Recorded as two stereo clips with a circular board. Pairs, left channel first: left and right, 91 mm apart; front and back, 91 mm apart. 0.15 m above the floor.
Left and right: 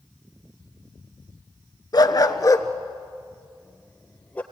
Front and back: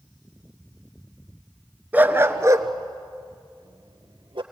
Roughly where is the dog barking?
Behind left.